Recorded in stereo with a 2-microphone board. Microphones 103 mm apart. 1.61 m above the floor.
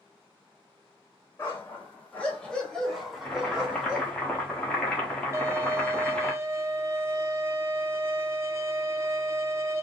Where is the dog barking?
20° left (ahead or behind), 1.5 m; by 4.1 s 15° right (ahead or behind), 1.6 m.